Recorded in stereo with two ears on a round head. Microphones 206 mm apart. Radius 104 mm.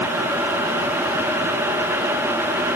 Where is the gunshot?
No gunshot in this recording.